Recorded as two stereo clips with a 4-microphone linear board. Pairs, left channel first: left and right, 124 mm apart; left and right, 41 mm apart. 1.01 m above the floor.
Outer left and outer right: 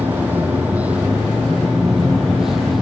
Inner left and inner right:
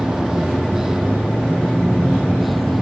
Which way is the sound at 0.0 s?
15° right (ahead or behind).